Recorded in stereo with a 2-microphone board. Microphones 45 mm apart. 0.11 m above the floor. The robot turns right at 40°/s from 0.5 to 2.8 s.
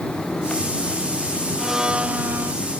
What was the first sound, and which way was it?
A blender, 170° right.